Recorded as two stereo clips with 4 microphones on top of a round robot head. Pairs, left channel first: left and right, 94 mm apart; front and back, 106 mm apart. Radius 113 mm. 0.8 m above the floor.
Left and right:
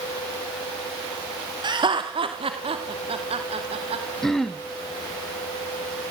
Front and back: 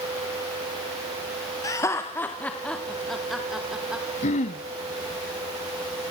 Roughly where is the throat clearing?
Ahead.